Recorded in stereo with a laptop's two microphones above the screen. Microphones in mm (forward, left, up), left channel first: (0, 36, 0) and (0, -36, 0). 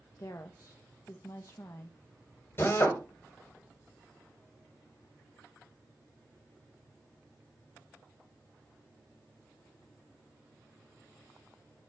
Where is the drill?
35° left (ahead or behind), 3 m.